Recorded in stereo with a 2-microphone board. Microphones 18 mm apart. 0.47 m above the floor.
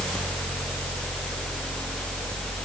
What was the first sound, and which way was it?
Only background noise.